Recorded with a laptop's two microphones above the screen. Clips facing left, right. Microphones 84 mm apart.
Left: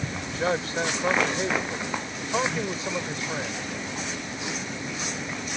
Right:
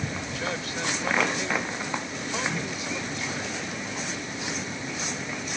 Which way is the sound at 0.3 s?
35° left (ahead or behind).